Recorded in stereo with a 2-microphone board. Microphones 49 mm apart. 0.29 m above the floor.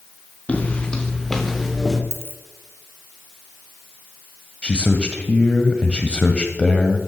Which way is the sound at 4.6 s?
25° left (ahead or behind).